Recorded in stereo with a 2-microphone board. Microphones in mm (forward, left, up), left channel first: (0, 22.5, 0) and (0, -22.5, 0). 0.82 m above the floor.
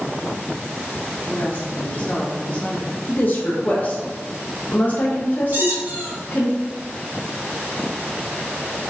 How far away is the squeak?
About 1.3 m.